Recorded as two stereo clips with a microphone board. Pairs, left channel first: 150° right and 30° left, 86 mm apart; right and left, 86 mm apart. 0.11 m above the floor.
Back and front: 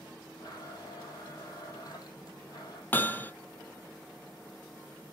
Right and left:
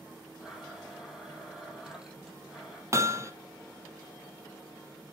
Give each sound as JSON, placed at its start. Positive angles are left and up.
{"t": 0.4, "sound": "a blender", "azimuth_deg": 170, "distance_m": 3.5}
{"t": 2.9, "sound": "hammering", "azimuth_deg": 145, "distance_m": 0.7}